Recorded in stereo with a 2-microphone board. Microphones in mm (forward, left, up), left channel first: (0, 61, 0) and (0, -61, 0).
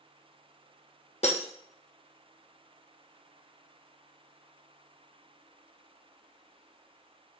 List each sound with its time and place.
1.2 s breaking glass: 70° left (ahead or behind), 1.7 m